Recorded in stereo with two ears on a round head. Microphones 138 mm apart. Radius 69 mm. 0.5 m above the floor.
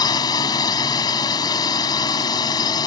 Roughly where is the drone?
Left.